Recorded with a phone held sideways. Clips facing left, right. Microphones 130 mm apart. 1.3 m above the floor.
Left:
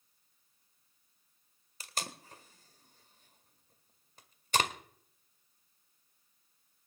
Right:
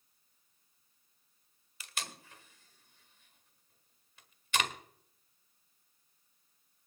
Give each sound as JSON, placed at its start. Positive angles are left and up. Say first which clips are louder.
{"t": 1.8, "sound": "tape being pulled", "louder": "left 3 dB", "side_deg": 35, "distance_m": 1.6}